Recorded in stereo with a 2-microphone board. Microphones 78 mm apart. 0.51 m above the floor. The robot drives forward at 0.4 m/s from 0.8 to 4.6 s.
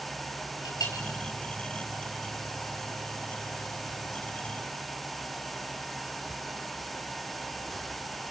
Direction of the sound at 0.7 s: 50° left (ahead or behind).